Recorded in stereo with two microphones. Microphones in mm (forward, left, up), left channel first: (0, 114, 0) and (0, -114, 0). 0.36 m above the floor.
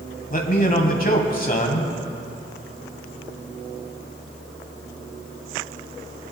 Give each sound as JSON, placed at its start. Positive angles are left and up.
{"t": 0.3, "sound": "a man speaking", "side_deg": 40, "distance_m": 2.5}